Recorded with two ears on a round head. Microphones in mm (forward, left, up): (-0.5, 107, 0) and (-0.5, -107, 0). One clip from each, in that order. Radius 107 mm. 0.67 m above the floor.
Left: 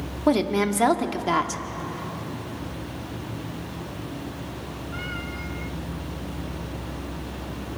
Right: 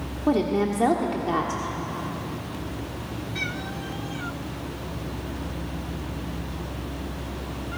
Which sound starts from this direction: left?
A woman speaking, at 0.3 s.